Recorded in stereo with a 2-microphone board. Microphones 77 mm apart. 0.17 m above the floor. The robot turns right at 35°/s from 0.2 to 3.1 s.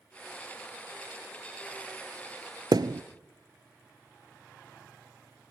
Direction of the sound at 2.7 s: 75° right (ahead or behind).